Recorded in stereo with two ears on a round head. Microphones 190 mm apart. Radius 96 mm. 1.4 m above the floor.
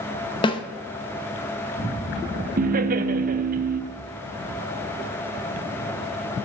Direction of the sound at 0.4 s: 20° left (ahead or behind).